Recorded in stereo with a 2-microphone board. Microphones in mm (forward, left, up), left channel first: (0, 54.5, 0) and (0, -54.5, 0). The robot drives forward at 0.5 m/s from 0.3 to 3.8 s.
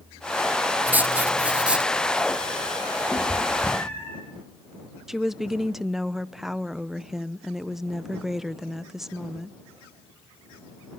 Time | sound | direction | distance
0.9 | writing | 15° right (ahead or behind) | 0.6 m
3.1 | a cat meowing | 15° left (ahead or behind) | 7.5 m
5.1 | a woman speaking | 5° right (ahead or behind) | 0.7 m